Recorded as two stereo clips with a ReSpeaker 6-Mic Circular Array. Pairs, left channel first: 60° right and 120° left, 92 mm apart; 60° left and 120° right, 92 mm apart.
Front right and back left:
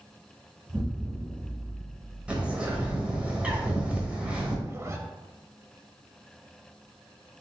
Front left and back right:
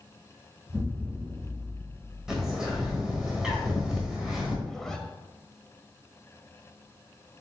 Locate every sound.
0.7 s an explosion: straight behind, 1.3 m
2.3 s a bird: 170° left, 1.1 m
4.7 s a zipper: 140° left, 0.5 m